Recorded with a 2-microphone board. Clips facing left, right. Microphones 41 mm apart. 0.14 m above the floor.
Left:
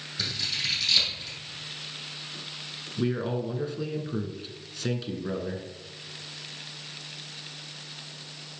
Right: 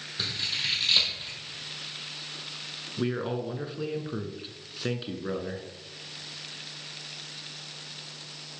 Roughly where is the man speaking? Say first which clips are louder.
Left 1 dB; centre.